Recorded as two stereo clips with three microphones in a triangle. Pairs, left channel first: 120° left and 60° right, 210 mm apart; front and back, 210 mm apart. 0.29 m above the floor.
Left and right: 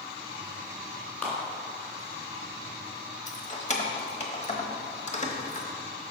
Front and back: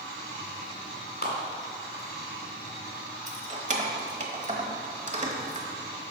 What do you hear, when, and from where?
1.2 s a clap: 40° left, 2 m
3.3 s keys jangling: 150° left, 1.0 m